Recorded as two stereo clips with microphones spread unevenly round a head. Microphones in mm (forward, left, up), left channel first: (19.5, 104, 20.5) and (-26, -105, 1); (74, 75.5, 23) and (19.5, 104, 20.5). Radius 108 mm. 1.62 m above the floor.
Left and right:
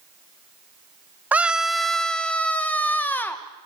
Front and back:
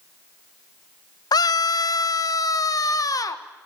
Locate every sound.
1.3 s a scream: 20° right, 0.7 m; by 3.4 s 5° right, 2 m